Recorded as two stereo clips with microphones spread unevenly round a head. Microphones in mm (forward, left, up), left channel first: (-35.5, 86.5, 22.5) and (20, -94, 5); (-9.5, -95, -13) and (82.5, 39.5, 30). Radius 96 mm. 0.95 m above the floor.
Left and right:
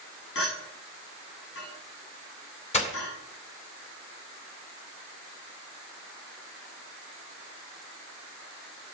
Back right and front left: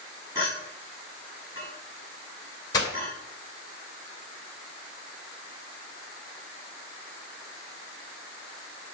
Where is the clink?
130° left, 7 m.